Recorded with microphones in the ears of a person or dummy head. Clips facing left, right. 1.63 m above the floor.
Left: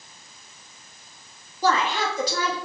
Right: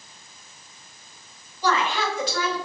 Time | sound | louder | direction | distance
1.6 | a woman speaking | left 1 dB | 35° left (ahead or behind) | 0.9 m